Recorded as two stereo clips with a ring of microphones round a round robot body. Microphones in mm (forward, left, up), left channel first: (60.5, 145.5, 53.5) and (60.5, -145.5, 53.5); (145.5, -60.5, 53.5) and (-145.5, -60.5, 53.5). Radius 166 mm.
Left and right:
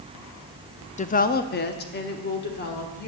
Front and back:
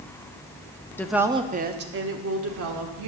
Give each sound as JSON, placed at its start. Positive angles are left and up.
{"t": 1.0, "sound": "a woman speaking", "azimuth_deg": 70, "distance_m": 0.6}